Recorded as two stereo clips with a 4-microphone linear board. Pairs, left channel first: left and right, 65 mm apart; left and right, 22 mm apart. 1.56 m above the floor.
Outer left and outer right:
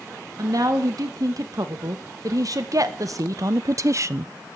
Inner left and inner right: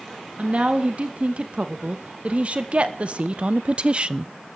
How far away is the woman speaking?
About 3 m.